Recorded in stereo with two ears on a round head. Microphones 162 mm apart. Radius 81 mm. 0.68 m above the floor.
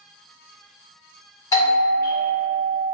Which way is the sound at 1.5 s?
15° left (ahead or behind).